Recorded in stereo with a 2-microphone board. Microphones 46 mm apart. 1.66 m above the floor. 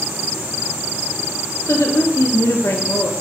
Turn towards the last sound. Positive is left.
turn(degrees=80)